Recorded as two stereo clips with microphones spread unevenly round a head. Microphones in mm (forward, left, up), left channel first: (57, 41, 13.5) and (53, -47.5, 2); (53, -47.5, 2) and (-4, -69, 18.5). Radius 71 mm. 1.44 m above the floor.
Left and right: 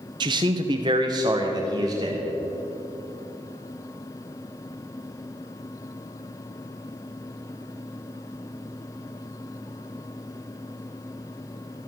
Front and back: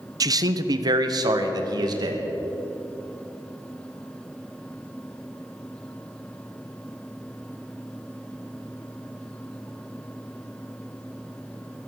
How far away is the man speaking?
About 0.9 m.